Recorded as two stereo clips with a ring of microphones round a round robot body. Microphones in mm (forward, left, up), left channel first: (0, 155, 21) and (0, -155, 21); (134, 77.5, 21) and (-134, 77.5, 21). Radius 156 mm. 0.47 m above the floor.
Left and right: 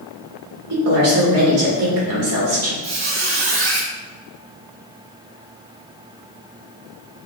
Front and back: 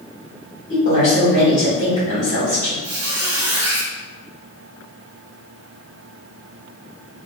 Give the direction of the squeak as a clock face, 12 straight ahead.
3 o'clock.